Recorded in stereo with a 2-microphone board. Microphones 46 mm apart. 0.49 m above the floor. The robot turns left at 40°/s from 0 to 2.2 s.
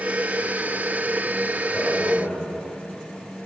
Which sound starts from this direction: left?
A man speaking, at 1.7 s.